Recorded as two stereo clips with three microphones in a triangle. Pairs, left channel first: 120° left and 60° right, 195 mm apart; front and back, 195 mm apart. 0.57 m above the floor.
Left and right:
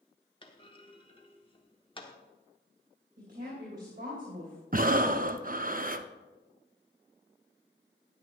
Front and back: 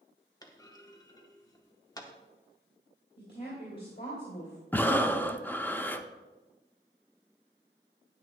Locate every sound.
0.4 s a clunk: 65° left, 1.0 m
3.2 s a woman speaking: 25° right, 2.5 m
4.7 s breathing: 75° right, 0.5 m